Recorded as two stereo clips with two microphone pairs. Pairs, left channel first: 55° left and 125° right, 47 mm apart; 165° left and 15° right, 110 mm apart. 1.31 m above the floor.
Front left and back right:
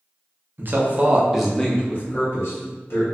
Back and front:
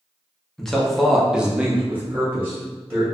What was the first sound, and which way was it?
A man speaking, 110° right.